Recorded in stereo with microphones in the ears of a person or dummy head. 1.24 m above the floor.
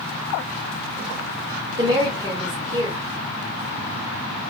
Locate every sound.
1.8 s a woman speaking: 25° right (ahead or behind), 0.9 m